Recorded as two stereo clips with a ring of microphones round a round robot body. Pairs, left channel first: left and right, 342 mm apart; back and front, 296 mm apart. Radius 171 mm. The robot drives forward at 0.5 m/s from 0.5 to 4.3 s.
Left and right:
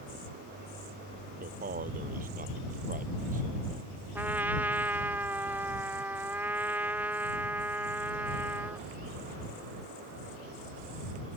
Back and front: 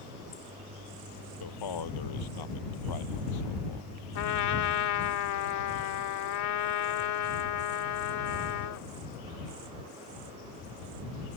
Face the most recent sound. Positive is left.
turn(degrees=-175)